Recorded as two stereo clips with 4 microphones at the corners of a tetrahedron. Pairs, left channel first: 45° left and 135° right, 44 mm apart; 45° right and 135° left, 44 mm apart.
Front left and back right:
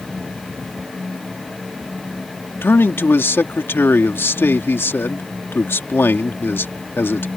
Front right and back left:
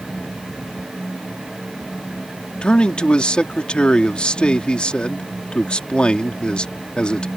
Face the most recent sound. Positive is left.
turn(degrees=20)